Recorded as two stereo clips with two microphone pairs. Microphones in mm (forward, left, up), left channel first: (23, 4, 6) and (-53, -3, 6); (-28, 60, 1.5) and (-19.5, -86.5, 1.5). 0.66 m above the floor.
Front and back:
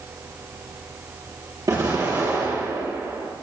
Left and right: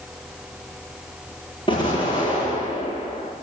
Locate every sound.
1.7 s an explosion: 145° left, 10 m